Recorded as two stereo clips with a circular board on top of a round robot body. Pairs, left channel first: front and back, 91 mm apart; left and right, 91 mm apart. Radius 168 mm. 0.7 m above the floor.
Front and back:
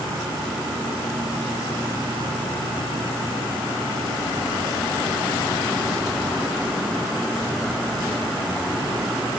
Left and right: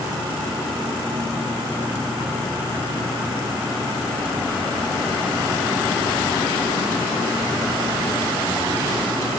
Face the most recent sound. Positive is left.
No sound to turn to.